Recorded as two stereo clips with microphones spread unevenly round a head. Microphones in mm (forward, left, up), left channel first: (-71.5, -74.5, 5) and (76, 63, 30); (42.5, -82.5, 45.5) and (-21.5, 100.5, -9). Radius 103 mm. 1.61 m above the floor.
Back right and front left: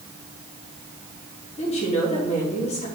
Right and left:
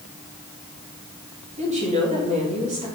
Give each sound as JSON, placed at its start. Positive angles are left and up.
{"t": 1.6, "sound": "a woman speaking", "azimuth_deg": 165, "distance_m": 3.5}